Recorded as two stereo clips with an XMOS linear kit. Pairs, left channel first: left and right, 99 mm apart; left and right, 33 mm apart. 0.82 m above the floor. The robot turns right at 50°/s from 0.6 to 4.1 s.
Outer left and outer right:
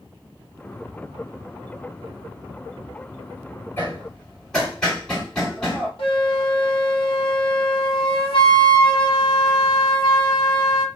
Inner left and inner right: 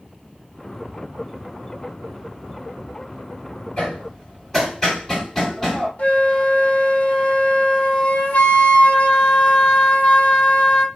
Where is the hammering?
25° left (ahead or behind), 1.8 m; by 5.9 s 5° left (ahead or behind), 1.8 m.